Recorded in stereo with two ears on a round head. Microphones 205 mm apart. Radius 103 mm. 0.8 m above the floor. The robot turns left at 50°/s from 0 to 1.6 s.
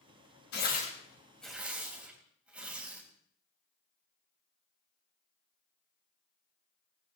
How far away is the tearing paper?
About 3 m.